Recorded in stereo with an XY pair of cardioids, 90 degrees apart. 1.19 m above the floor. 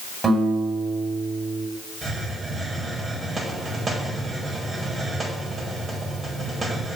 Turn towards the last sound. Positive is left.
turn(degrees=-45)